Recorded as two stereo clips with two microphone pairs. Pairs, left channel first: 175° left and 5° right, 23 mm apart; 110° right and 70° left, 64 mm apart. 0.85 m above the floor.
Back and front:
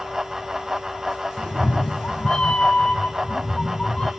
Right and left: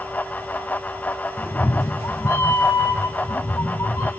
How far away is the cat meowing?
About 1.6 m.